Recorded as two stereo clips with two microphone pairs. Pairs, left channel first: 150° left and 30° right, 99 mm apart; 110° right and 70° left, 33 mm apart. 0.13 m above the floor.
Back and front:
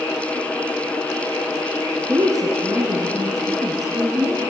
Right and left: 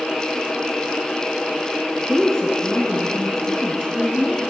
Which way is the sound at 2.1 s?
55° right.